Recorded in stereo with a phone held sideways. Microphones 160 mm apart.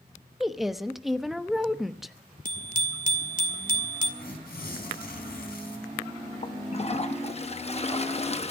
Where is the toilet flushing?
40° left (ahead or behind), 0.8 m.